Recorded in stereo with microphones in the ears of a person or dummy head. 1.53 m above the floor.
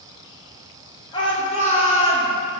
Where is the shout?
25° left (ahead or behind), 1.5 m; by 2.3 s 35° left (ahead or behind), 2.5 m.